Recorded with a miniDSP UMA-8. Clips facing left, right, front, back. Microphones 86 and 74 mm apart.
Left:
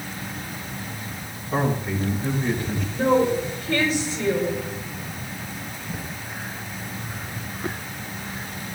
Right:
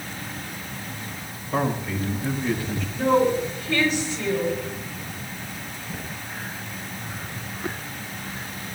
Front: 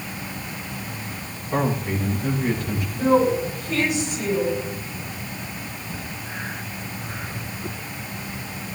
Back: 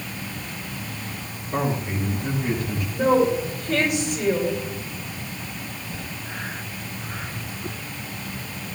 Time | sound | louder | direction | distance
1.5 | a man speaking | left 1 dB, front 2 dB | 50° left | 7.5 m
2.9 | a woman speaking | even, even | 145° left | 6.5 m